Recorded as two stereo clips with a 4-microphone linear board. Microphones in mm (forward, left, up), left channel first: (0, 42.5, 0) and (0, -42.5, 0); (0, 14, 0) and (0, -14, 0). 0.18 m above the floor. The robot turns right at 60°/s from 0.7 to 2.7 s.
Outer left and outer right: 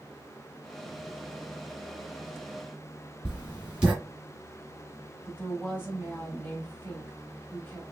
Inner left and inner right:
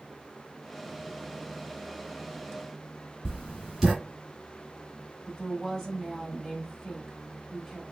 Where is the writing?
10° right (ahead or behind), 1.5 m.